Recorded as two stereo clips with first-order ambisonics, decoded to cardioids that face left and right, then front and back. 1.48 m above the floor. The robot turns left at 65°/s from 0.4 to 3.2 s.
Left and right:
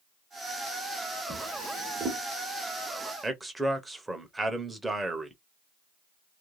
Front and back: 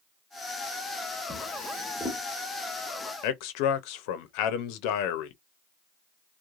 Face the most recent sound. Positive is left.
turn(degrees=-5)